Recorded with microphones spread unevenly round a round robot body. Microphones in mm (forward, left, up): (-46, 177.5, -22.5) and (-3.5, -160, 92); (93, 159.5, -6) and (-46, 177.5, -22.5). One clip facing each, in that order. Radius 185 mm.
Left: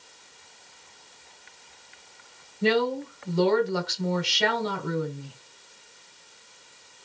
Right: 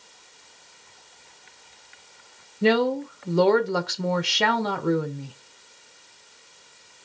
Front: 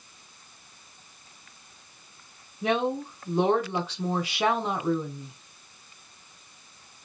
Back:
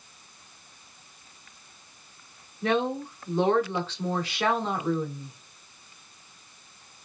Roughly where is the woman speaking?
Right.